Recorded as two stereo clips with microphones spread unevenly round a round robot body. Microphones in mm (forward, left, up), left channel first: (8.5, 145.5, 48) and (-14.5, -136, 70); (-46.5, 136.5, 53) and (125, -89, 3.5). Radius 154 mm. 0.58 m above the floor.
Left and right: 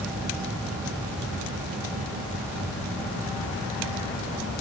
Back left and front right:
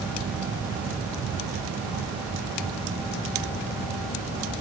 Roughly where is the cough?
I don't hear a cough.